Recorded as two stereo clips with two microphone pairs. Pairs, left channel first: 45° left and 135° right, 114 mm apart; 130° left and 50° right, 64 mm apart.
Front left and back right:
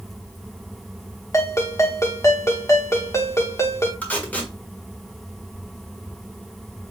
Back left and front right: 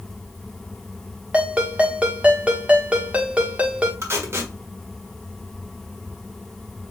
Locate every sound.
1.3 s a ringtone: 5° left, 1.1 m
4.0 s tape being pulled: 30° right, 1.4 m